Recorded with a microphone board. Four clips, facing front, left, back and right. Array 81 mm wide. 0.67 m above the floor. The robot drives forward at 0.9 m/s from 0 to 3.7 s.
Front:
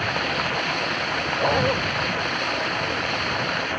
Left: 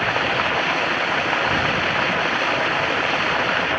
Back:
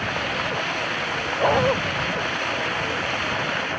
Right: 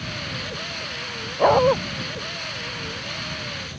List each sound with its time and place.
0.0 s running water: 85° left; by 3.8 s 90° left
1.4 s a dog barking: 100° right